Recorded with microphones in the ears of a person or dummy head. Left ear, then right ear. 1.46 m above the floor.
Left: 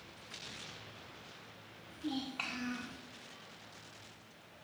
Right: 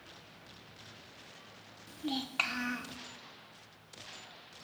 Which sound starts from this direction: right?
A child speaking, at 1.9 s.